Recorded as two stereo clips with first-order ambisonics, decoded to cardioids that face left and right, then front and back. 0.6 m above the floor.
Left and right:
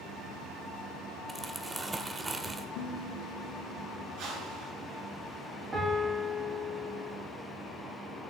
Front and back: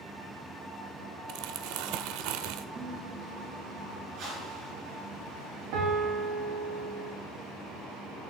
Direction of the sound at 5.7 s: 160° right.